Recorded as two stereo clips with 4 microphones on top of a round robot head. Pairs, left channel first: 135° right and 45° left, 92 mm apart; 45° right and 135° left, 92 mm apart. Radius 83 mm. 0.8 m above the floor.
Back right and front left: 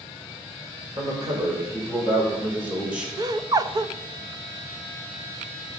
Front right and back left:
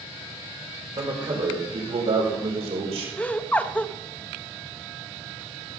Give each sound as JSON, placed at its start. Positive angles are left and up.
{"t": 1.0, "sound": "a man speaking", "azimuth_deg": 90, "distance_m": 3.5}
{"t": 3.2, "sound": "laughter", "azimuth_deg": 25, "distance_m": 1.0}